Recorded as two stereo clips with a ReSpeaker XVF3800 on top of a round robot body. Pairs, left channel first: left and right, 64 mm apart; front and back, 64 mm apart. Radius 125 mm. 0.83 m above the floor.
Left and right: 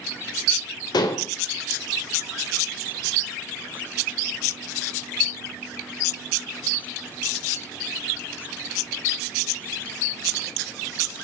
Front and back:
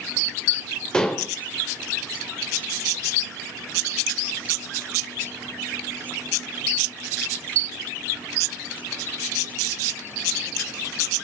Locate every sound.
0.9 s dishes clattering: 80° left, 2 m